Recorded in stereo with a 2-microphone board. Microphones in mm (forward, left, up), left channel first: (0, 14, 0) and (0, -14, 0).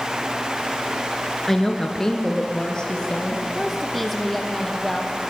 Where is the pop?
No pop in this recording.